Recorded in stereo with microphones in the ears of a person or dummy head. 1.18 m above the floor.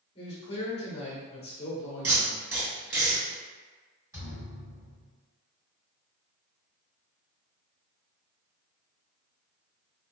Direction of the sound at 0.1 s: 30° left (ahead or behind).